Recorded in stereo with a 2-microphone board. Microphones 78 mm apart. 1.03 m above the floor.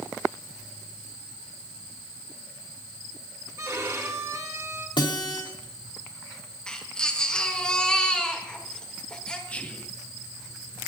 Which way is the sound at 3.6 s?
45° right (ahead or behind).